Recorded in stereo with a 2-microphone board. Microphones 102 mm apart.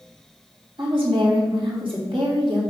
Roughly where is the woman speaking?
Right.